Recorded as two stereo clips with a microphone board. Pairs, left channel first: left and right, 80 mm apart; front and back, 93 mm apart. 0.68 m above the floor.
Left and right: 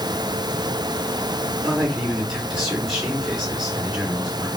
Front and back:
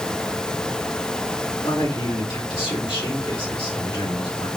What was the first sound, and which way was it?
A man speaking, 5° right.